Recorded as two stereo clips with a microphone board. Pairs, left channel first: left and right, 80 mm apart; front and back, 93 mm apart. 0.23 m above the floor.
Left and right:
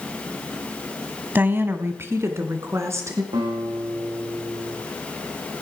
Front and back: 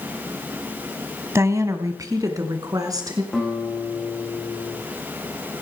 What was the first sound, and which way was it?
A woman speaking, 140° right.